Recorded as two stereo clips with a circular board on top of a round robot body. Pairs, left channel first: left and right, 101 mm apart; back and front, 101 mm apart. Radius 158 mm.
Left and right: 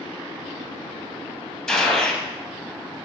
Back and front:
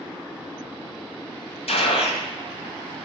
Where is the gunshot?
175° left, 2.5 m.